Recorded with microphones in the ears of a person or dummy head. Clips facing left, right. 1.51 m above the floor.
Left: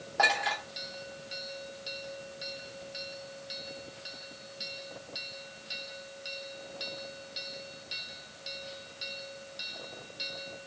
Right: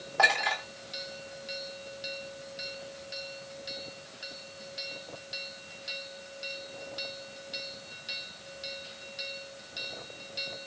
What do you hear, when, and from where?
0.2 s a clink: centre (ahead or behind), 2.5 m